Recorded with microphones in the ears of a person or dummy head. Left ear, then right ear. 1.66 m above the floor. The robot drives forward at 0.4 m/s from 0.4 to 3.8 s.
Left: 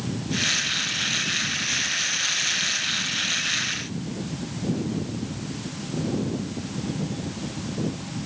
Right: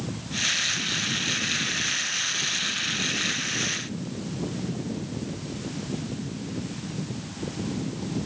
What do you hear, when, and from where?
Only background noise.